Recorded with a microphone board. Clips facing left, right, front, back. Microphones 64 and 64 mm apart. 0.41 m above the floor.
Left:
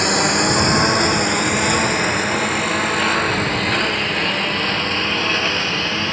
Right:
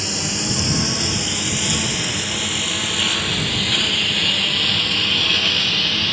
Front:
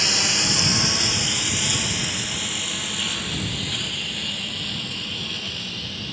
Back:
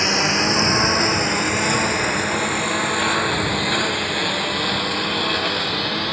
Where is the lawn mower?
120° left; by 6.1 s 150° left.